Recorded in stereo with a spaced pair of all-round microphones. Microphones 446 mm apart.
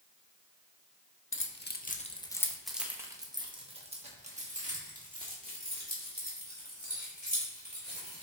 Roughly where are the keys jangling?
Left.